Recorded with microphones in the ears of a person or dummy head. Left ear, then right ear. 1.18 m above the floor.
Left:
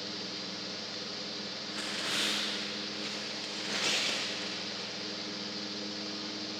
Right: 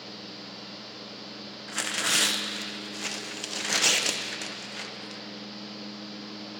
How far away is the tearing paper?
About 0.7 m.